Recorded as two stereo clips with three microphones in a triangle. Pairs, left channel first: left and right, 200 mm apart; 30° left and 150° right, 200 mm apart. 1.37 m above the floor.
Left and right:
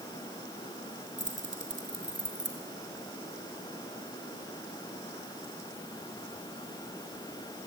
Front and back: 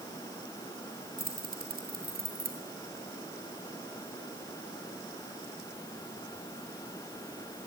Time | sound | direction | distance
1.2 | keys jangling | 110° right | 4 m